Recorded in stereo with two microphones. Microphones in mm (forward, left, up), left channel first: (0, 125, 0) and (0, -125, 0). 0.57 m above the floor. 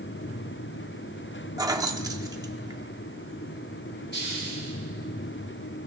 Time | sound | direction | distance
1.6 | keys jangling | 15° right (ahead or behind) | 0.9 m
4.1 | a hiss | 45° left (ahead or behind) | 4 m